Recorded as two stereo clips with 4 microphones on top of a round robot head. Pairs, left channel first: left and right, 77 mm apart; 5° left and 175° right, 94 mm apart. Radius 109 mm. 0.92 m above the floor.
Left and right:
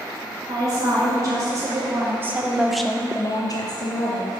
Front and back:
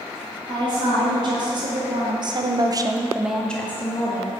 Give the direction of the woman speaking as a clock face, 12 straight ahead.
5 o'clock.